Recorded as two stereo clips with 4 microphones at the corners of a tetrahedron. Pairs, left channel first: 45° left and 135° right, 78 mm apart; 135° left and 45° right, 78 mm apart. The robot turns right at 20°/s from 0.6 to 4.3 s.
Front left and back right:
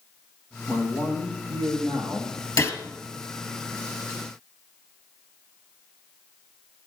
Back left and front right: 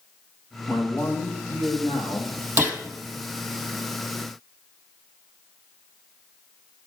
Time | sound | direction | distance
0.7 | a man speaking | 80° left | 5.5 m
2.6 | a gunshot | 10° left | 2 m